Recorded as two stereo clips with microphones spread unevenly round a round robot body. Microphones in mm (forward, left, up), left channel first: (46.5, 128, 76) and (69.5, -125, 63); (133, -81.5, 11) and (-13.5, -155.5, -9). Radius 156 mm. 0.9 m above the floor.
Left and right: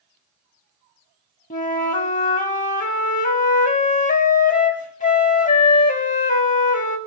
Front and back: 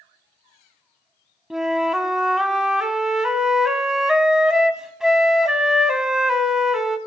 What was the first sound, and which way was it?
A flute, 110° left.